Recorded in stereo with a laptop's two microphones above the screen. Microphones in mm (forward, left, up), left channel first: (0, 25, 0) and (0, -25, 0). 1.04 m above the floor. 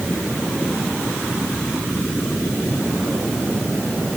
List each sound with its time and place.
Only background noise.